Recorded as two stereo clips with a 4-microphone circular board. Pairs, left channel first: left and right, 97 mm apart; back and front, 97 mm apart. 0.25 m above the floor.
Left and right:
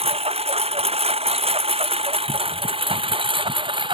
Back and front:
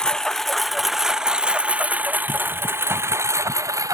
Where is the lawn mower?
100° right; by 3.9 s 55° right.